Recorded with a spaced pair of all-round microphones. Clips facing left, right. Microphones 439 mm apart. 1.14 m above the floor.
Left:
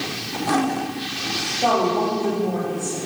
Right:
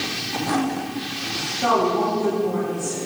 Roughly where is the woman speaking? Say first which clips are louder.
Even; right.